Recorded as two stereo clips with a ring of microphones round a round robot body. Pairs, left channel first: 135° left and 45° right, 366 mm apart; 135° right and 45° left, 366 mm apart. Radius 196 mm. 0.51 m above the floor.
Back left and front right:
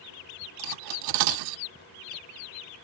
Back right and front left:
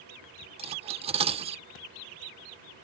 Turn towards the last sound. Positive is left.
turn(degrees=-30)